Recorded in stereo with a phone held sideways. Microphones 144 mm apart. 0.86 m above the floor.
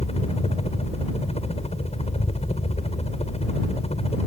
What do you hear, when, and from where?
0.0 s a helicopter: 45° left (ahead or behind)